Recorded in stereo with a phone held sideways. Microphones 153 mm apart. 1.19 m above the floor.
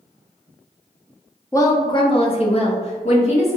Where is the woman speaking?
20° left (ahead or behind), 0.6 m; by 3.6 s 45° left (ahead or behind), 1.3 m.